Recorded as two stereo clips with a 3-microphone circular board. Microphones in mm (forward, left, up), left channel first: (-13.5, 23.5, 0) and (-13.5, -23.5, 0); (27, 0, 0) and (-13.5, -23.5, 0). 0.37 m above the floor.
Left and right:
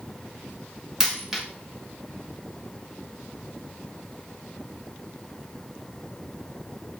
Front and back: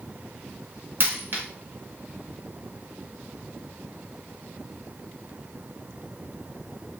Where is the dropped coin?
170° right, 0.6 m.